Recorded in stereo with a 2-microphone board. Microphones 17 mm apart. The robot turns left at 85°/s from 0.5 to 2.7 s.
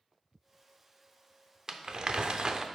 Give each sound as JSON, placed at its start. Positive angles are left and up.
{"t": 1.7, "sound": "crumpling", "azimuth_deg": -45, "distance_m": 0.5}